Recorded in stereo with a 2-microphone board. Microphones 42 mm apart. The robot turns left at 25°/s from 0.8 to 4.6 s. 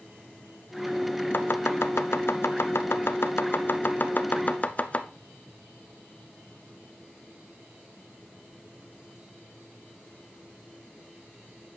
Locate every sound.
1.3 s chopping: 60° left (ahead or behind), 0.6 m; by 5.1 s 40° left (ahead or behind), 0.6 m